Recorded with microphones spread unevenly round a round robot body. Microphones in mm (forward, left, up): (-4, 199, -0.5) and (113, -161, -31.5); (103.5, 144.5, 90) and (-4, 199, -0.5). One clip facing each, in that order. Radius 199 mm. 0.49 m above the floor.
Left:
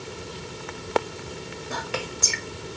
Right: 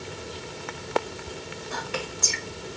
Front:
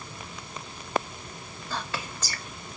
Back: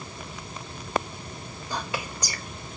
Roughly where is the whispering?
Left.